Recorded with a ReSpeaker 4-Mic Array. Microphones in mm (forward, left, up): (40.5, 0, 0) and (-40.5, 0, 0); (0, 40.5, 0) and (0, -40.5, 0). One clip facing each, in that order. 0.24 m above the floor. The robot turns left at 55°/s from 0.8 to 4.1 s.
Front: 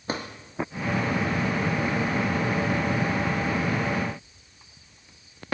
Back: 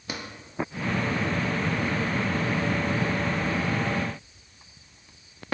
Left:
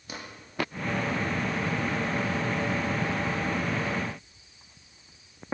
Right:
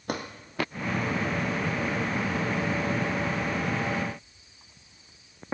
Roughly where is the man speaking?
No man speaking in this recording.